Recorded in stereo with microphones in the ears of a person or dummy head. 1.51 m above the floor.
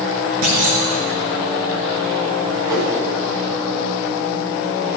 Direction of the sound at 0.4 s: 70° right (ahead or behind).